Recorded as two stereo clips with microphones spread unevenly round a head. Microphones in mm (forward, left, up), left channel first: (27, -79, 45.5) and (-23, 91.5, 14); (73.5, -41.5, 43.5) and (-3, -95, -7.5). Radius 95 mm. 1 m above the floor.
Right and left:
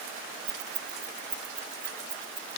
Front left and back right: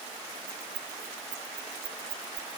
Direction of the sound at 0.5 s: 160° left.